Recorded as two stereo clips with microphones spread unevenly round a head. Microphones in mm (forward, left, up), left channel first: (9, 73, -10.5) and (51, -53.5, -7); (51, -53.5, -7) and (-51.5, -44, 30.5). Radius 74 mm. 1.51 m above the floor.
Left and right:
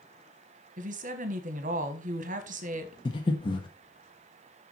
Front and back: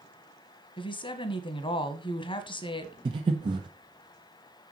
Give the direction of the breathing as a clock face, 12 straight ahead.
7 o'clock.